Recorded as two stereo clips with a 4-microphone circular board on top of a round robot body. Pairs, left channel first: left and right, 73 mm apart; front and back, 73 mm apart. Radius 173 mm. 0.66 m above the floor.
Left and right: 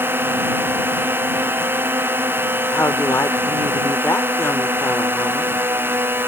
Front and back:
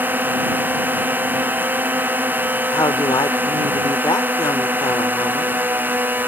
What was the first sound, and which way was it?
A drone, 130° right.